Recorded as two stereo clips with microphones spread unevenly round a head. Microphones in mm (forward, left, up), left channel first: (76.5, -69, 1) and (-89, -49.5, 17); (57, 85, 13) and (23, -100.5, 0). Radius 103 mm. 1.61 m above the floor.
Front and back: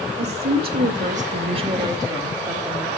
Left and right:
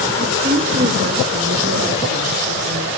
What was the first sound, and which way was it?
A woman speaking, 170° right.